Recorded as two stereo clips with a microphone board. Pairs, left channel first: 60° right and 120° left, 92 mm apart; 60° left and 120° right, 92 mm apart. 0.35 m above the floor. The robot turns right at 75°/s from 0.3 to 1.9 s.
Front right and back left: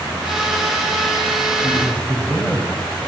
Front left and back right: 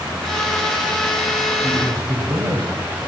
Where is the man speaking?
155° right, 2 m; by 2.8 s 135° right, 2 m.